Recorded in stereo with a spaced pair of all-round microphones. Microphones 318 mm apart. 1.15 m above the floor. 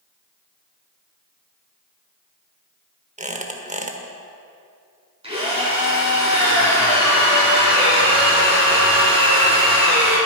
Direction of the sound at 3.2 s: 20° right (ahead or behind).